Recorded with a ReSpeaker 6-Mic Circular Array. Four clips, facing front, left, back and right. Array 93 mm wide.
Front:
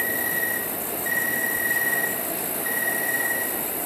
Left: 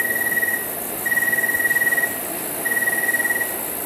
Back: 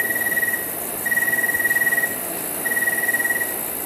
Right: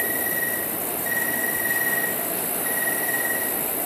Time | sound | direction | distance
0.0 | an insect | 125° left | 1.2 m